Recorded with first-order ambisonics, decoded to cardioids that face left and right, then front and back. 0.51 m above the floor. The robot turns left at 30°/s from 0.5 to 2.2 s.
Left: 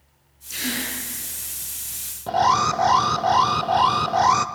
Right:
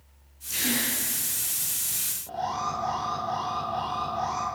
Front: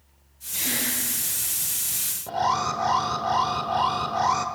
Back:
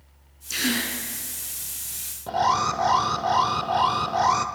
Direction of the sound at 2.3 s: 100° left.